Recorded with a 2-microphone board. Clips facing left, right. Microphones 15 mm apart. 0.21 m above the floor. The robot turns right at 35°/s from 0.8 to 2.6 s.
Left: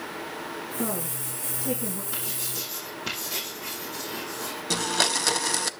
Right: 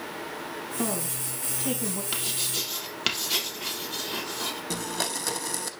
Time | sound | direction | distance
0.8 | a woman speaking | 35° right (ahead or behind) | 7 m
2.1 | writing | 65° right (ahead or behind) | 3.5 m
4.7 | a blender | 35° left (ahead or behind) | 0.6 m